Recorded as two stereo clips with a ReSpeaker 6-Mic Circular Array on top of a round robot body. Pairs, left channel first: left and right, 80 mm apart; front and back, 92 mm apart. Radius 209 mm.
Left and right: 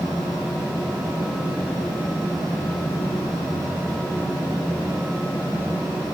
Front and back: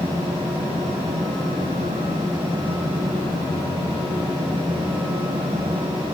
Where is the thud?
I don't hear a thud.